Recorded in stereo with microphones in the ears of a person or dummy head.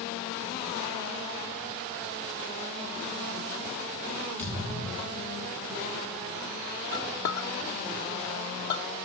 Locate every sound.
4.4 s a thud: 15° left (ahead or behind), 6 m
6.9 s a clink: 45° left (ahead or behind), 0.9 m